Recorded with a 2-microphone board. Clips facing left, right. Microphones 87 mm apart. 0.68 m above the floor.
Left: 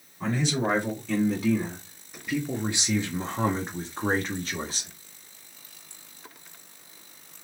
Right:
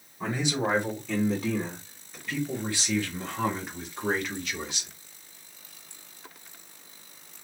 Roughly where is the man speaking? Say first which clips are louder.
Left 2 dB; centre.